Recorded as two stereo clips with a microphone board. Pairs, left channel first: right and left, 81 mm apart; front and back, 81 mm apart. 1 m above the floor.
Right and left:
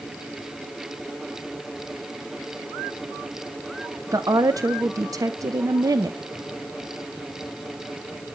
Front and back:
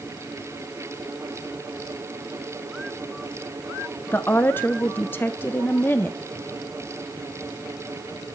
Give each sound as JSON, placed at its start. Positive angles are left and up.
{"t": 4.1, "sound": "a woman speaking", "azimuth_deg": 60, "distance_m": 0.6}